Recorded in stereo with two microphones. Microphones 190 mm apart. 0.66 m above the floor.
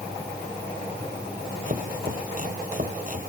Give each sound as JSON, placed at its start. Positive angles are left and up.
{"t": 1.7, "sound": "chopping", "side_deg": -45}